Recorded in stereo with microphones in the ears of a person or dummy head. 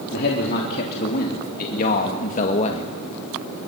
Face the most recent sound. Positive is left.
turn(degrees=35)  # may be behind; listen again after turning